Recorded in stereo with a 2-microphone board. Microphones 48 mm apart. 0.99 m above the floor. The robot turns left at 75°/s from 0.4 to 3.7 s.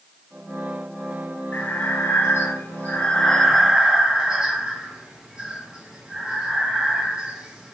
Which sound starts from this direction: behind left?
Breathing, at 1.5 s.